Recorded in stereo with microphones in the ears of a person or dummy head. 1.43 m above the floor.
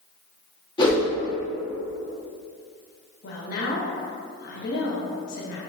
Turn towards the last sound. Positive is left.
turn(degrees=50)  # may be behind; listen again after turning